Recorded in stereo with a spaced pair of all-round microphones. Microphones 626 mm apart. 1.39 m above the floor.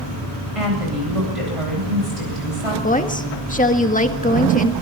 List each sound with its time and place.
0.6 s a woman speaking: 60° right (ahead or behind), 8.5 m
2.8 s a woman speaking: 10° left (ahead or behind), 1.6 m